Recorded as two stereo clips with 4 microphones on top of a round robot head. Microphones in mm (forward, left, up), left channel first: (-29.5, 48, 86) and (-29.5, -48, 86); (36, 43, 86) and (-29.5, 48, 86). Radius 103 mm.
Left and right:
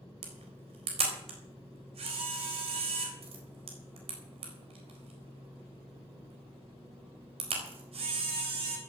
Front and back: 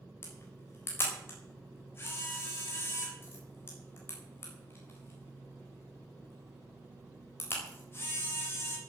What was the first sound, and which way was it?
A camera shutter, 65° right.